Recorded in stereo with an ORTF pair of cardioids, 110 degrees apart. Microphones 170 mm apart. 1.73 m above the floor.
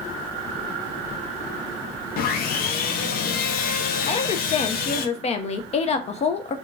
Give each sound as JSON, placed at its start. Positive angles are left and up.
{"t": 2.2, "sound": "sawing", "azimuth_deg": 60, "distance_m": 0.5}
{"t": 4.1, "sound": "a woman speaking", "azimuth_deg": 40, "distance_m": 0.5}